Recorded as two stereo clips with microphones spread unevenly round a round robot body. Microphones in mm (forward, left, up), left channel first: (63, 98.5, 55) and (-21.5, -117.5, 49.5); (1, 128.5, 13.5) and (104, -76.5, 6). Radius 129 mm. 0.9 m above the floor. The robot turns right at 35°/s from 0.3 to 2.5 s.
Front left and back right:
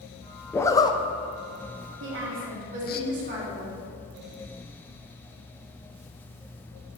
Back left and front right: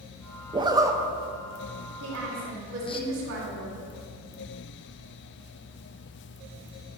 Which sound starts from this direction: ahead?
A zipper, at 0.5 s.